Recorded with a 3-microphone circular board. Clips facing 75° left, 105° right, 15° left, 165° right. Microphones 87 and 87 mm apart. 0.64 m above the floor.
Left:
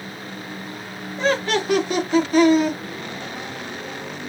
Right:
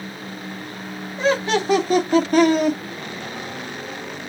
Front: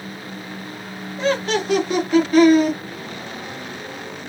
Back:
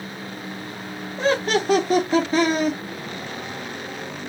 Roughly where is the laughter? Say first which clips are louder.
Right 1 dB, even; behind.